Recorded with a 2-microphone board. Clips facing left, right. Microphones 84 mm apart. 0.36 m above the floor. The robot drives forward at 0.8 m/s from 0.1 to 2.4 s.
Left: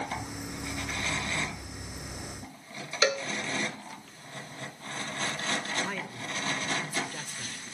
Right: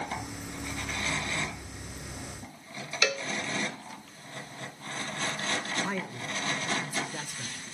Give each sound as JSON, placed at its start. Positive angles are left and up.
{"t": 3.0, "sound": "a cowbell", "side_deg": 25, "distance_m": 1.3}
{"t": 5.8, "sound": "a man speaking", "side_deg": -15, "distance_m": 1.1}